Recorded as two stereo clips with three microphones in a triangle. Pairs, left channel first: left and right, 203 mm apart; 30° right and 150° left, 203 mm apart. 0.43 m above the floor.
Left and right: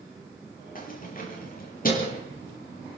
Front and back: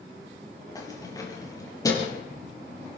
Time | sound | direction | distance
0.8 | keys jangling | 40° left | 7 m